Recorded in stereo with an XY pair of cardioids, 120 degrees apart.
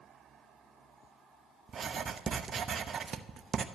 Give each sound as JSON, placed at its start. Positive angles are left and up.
{"t": 1.7, "sound": "writing", "azimuth_deg": -35, "distance_m": 0.9}